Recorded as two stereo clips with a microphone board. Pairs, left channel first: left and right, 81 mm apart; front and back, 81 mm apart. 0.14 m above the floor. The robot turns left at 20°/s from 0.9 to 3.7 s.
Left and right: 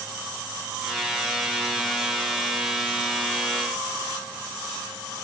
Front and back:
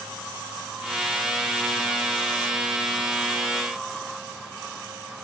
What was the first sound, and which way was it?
Only background noise.